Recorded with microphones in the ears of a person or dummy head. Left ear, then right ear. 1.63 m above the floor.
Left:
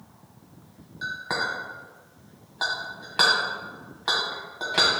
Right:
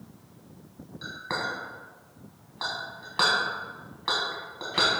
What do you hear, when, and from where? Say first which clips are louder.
1.0 s a clink: left 4 dB; 15° left (ahead or behind), 0.8 m